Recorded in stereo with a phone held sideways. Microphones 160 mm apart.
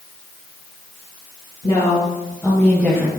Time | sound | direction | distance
1.6 | a woman speaking | 35° left (ahead or behind) | 1.8 m